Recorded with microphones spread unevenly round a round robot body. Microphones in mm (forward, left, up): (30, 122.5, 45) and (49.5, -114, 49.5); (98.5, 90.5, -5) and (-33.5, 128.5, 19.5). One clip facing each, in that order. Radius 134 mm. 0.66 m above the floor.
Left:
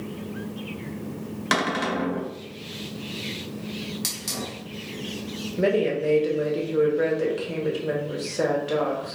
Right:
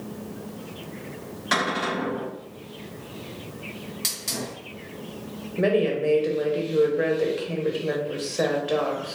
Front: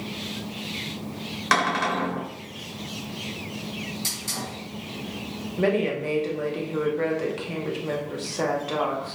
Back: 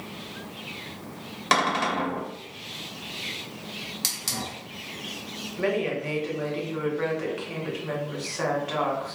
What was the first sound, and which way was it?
A cupboard door, 95° left.